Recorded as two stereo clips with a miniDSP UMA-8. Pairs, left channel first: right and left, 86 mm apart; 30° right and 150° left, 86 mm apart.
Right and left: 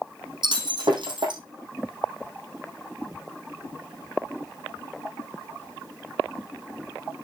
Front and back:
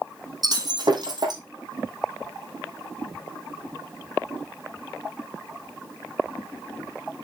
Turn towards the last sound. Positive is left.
turn(degrees=115)